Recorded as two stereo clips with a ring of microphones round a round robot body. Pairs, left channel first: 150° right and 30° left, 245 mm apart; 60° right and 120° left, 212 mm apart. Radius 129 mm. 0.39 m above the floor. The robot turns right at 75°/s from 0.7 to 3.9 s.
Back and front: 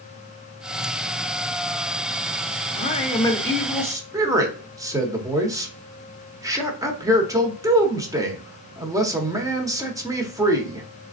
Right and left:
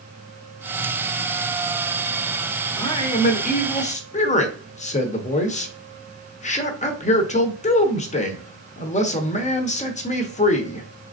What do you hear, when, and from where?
2.8 s a man speaking: 125° right, 1.0 m; by 10.9 s 35° right, 1.0 m